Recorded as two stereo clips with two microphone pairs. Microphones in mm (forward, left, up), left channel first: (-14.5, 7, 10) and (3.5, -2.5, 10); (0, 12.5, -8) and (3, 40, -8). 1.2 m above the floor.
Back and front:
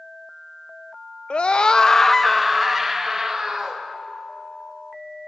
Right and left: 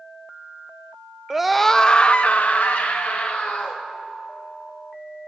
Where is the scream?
150° left, 0.7 m; by 3.8 s 100° right, 2.5 m.